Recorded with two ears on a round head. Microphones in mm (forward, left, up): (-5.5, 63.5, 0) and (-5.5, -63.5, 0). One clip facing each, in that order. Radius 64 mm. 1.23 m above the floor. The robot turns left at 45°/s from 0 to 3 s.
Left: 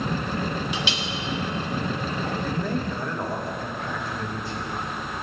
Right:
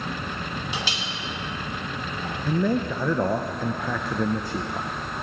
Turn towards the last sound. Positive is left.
turn(degrees=-75)  # may be behind; listen again after turning